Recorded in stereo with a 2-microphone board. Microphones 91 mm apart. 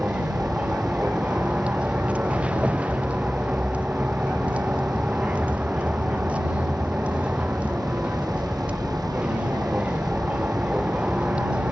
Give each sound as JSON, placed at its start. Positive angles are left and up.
{"t": 0.0, "sound": "a vehicle", "side_deg": -15}